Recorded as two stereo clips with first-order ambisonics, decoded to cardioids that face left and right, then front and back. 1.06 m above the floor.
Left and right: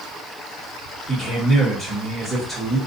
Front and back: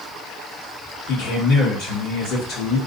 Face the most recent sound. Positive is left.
turn(degrees=0)